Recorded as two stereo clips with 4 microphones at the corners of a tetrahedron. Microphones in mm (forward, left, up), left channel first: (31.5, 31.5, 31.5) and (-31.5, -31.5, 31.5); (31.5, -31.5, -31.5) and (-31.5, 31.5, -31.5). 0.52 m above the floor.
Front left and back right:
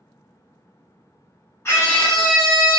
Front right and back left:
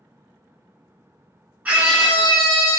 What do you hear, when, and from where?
1.6 s a scream: 80° left, 1.3 m; by 2.8 s 120° right, 1.1 m